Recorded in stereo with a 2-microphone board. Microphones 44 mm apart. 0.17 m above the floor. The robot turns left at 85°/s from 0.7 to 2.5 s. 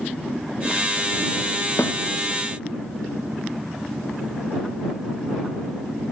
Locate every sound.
1.8 s a snare drum: 60° left (ahead or behind); by 2.0 s 75° left (ahead or behind)